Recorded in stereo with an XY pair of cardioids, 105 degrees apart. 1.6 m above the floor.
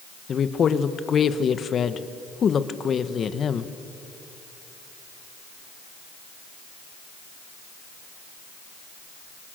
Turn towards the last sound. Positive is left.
turn(degrees=45)